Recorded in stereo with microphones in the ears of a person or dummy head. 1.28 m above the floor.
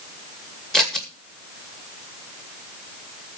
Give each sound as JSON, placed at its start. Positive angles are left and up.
{"t": 0.7, "sound": "scissors", "side_deg": 0, "distance_m": 2.0}